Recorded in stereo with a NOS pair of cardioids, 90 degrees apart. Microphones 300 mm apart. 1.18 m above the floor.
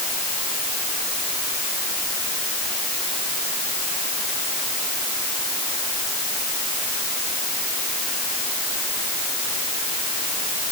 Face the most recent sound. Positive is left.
No sound to turn to.